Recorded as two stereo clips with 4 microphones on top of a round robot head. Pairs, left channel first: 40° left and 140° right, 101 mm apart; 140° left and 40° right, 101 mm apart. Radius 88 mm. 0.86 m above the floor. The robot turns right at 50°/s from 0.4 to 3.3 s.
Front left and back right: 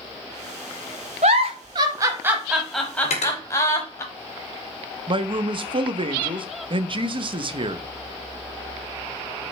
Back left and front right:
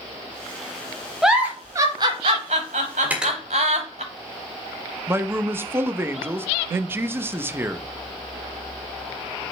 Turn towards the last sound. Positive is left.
turn(degrees=-105)